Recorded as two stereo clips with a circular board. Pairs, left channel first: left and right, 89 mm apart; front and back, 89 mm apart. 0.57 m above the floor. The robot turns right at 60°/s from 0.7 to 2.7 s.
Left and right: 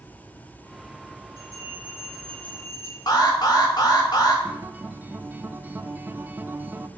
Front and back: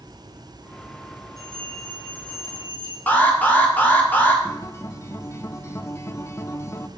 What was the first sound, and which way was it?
A bell, 50° right.